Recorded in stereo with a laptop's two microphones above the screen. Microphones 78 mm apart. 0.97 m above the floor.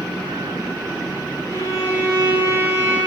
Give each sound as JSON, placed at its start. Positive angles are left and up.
{"t": 1.5, "sound": "a violin", "side_deg": -45, "distance_m": 3.5}